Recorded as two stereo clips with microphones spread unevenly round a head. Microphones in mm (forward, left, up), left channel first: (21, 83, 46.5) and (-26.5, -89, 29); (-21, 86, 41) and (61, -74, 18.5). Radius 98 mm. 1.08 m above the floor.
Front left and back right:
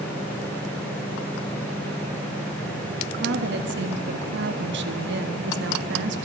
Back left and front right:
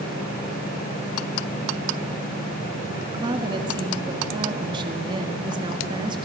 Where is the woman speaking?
130° right, 1.6 m.